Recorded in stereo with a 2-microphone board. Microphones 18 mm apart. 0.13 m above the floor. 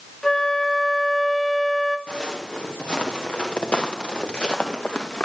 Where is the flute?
25° left (ahead or behind), 0.8 m.